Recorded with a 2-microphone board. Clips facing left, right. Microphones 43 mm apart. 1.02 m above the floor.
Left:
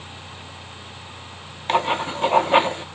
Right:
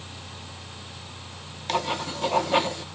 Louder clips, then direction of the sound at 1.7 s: Left 6 dB; 35° left (ahead or behind).